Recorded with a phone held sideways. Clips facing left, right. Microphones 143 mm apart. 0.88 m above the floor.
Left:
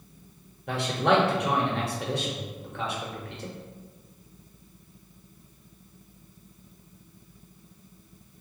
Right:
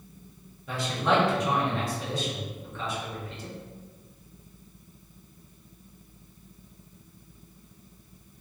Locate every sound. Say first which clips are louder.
0.7 s a man speaking: left 2 dB; 65° left (ahead or behind), 1.2 m